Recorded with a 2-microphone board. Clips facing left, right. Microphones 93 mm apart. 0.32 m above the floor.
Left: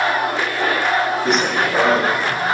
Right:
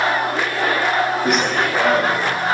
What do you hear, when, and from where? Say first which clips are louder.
1.2 s running footsteps: even; 5° right (ahead or behind), 0.9 m; by 2.5 s 50° left (ahead or behind), 1.7 m